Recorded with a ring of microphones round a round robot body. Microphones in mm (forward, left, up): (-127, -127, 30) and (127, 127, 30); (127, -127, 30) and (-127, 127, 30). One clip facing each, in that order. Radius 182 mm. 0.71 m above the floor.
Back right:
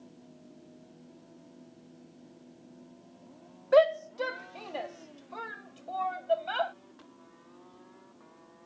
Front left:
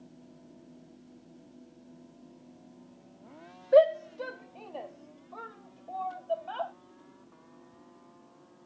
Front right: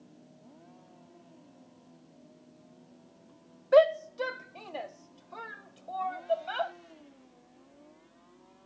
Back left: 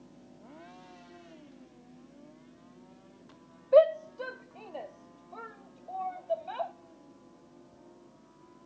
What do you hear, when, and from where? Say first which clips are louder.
3.7 s a shout: front left 2 dB, even; 80° right; by 6.7 s 95° right